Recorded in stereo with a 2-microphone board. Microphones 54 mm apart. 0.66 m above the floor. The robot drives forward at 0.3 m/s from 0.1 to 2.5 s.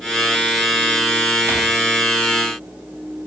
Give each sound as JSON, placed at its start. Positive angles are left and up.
{"t": 1.5, "sound": "crumpling", "side_deg": -55, "distance_m": 1.0}